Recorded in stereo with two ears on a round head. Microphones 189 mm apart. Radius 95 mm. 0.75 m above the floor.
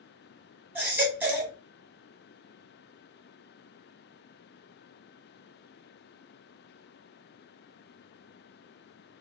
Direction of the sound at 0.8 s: 10° right (ahead or behind).